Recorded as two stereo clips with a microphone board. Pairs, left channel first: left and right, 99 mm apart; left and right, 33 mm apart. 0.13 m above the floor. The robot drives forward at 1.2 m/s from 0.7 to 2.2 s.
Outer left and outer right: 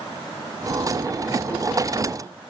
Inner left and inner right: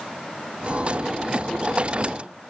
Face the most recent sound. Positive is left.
No sound to turn to.